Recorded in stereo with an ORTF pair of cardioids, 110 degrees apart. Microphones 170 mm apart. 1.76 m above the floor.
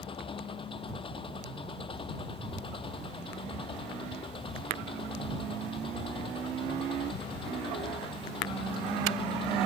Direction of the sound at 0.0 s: 30° left.